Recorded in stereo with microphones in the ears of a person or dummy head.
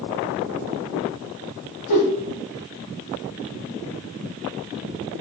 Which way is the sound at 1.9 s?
40° left (ahead or behind).